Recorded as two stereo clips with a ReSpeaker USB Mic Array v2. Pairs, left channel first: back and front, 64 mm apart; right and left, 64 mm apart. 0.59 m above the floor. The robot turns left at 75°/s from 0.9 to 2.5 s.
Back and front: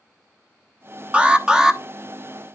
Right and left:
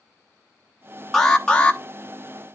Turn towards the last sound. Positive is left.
turn(degrees=-115)